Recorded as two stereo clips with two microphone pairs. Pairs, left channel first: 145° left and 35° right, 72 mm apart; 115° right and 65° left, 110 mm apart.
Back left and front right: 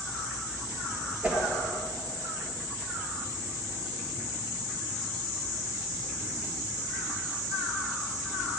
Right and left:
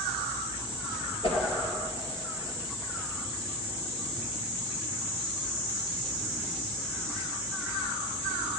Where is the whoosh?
100° right, 2 m.